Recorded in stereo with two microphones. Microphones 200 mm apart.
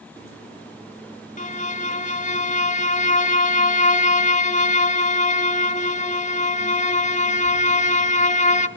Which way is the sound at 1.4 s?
40° left (ahead or behind).